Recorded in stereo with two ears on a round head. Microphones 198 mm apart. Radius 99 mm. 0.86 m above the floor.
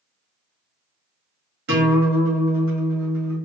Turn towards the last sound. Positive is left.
turn(degrees=-50)  # may be behind; listen again after turning